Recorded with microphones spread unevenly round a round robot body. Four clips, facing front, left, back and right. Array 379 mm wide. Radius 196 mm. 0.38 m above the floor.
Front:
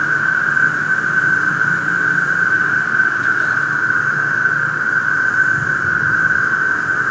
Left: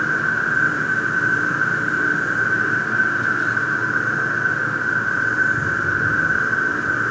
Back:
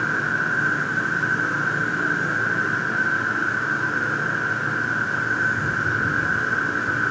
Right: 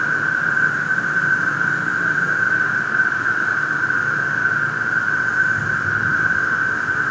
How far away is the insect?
About 4 m.